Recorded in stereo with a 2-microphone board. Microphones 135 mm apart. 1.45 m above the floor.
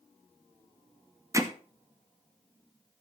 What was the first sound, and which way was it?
Hammering, 25° right (ahead or behind).